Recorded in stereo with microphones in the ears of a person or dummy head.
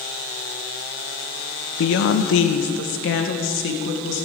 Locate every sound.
1.8 s a woman speaking: 70° left (ahead or behind), 0.9 m; by 4.3 s 75° left (ahead or behind), 2.5 m